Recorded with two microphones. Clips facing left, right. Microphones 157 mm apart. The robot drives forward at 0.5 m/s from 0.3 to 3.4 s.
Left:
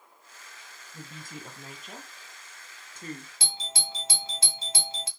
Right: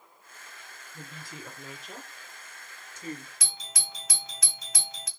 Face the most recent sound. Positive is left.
turn(degrees=30)  # may be behind; listen again after turning